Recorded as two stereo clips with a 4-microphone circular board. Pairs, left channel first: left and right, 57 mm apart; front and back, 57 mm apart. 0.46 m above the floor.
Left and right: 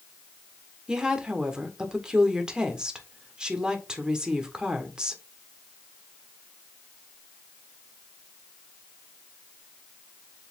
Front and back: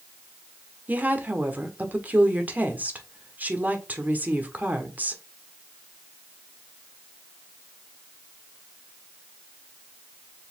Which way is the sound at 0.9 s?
155° right.